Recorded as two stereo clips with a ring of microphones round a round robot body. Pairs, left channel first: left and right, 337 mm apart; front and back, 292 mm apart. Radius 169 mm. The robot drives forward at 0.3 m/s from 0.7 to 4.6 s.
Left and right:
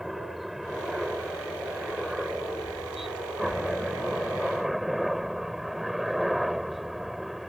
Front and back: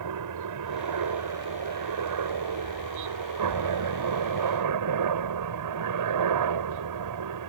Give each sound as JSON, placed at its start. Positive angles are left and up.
{"t": 0.0, "sound": "a helicopter", "azimuth_deg": 180}